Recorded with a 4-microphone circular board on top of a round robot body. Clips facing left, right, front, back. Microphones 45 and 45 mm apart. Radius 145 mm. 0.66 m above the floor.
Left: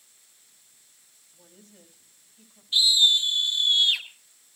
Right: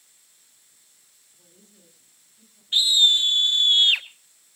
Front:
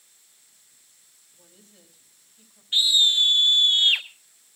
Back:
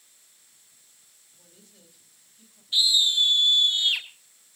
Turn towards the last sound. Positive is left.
turn(degrees=-45)